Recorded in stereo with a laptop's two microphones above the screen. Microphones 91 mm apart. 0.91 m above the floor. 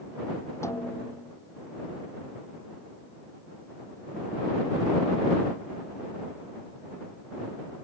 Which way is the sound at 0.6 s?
30° left (ahead or behind).